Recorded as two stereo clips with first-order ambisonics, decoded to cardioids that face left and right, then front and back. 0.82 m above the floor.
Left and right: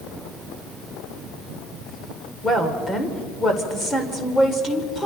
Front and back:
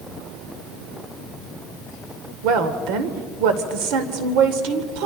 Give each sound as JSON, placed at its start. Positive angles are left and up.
{"t": 2.4, "sound": "a woman speaking", "azimuth_deg": 170, "distance_m": 2.0}